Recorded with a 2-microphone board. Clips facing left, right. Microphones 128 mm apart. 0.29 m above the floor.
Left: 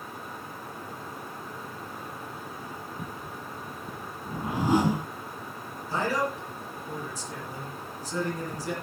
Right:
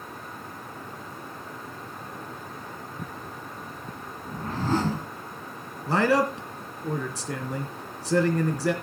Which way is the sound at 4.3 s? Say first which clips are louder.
Left 2 dB; 15° left (ahead or behind).